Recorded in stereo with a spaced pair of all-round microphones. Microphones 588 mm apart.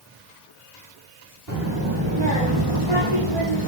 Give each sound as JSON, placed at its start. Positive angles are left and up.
{"t": 1.5, "sound": "a child speaking", "side_deg": -35, "distance_m": 2.0}